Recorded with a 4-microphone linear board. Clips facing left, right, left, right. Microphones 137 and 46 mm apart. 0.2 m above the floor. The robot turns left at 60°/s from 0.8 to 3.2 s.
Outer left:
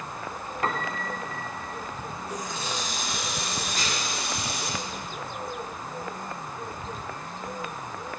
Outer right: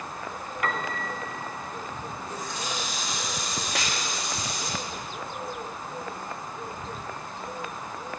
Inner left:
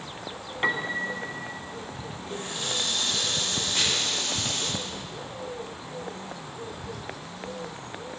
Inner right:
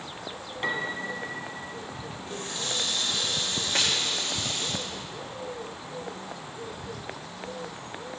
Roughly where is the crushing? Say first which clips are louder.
Outer right 2 dB, inner right 1 dB; right.